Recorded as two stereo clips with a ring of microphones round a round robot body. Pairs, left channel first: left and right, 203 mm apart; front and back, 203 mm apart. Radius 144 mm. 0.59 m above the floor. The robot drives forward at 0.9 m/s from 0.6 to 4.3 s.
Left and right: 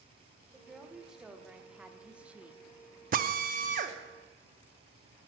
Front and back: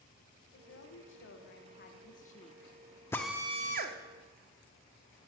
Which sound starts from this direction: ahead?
A woman speaking, at 0.5 s.